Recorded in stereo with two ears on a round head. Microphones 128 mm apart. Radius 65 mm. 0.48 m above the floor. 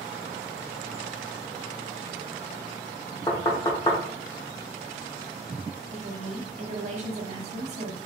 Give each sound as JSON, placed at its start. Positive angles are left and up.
{"t": 3.3, "sound": "knocking", "side_deg": 25, "distance_m": 1.1}
{"t": 5.9, "sound": "a woman speaking", "side_deg": -45, "distance_m": 1.2}